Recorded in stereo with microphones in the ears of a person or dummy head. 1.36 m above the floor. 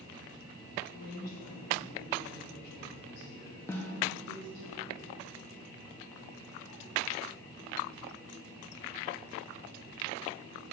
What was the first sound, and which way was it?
A woman speaking, 45° left (ahead or behind).